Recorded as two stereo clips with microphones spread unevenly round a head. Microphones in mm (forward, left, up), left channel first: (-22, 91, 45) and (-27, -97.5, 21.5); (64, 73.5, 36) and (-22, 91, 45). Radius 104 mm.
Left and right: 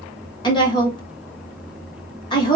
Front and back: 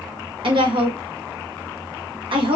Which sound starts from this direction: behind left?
A woman speaking, at 0.4 s.